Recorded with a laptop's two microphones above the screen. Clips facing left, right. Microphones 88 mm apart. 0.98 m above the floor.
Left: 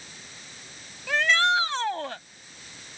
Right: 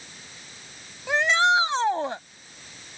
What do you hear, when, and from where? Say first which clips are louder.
1.1 s a shout: right 2 dB; 20° right (ahead or behind)